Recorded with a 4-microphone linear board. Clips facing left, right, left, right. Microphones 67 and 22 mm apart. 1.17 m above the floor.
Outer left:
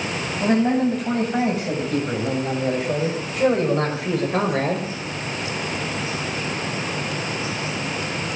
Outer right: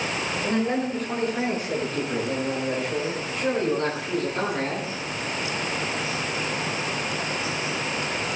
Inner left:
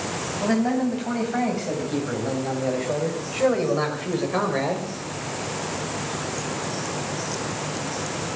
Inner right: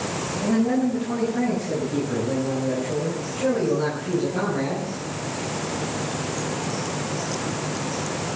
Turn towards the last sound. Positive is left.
turn(degrees=85)